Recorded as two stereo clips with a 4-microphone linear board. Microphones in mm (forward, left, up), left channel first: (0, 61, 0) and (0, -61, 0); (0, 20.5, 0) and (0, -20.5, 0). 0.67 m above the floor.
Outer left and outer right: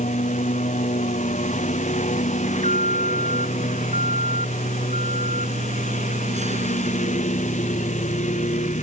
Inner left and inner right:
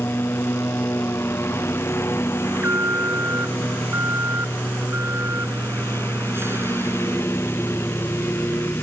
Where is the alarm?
75° right (ahead or behind).